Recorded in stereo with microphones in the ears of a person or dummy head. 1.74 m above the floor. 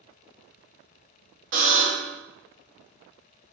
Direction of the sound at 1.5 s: 30° right (ahead or behind).